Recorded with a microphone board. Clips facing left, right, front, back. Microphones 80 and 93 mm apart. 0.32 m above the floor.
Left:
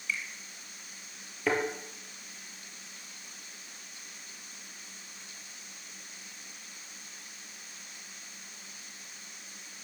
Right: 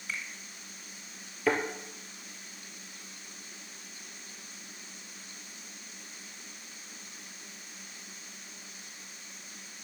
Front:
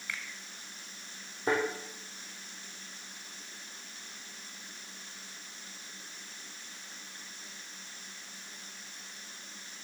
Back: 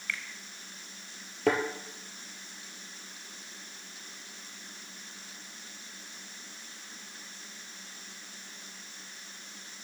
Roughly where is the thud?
Behind.